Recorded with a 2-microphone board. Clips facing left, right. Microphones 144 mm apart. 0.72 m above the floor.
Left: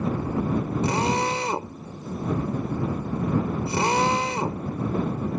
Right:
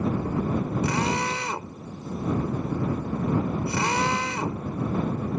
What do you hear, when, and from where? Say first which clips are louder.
0.8 s a drill: left 2 dB; 30° left (ahead or behind)